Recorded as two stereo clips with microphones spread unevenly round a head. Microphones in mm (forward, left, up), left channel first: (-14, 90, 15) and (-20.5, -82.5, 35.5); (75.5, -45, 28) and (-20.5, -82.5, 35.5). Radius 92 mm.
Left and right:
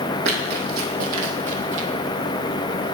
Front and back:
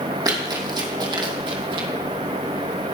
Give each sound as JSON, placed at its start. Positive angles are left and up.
{"t": 0.2, "sound": "running footsteps", "azimuth_deg": -115, "distance_m": 2.5}